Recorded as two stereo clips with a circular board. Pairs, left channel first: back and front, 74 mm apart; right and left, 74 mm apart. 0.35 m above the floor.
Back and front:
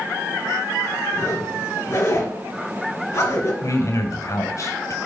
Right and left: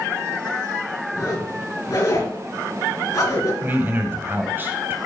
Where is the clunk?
No clunk in this recording.